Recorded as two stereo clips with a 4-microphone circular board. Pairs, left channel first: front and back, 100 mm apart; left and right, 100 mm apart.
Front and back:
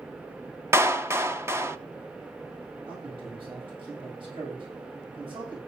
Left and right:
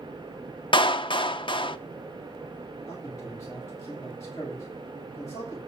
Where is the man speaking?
150° left, 9 m.